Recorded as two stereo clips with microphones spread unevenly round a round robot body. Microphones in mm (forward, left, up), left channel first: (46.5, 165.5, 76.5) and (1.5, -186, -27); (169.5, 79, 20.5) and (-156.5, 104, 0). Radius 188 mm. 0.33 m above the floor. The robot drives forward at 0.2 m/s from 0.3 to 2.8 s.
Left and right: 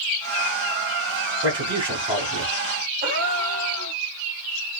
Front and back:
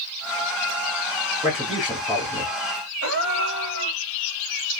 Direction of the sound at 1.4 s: 70° right.